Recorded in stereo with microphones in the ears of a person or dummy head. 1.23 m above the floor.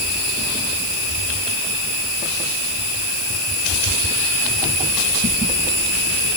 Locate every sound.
Only background noise.